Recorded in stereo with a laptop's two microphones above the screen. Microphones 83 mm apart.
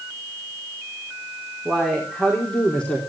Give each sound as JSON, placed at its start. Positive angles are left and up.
{"t": 1.6, "sound": "a man speaking", "side_deg": 5, "distance_m": 4.0}